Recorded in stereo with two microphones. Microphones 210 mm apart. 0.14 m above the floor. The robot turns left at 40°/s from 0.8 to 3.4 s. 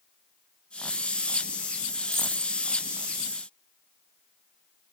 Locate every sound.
2.0 s a dropped coin: 15° right (ahead or behind), 0.7 m; by 2.5 s centre (ahead or behind), 0.7 m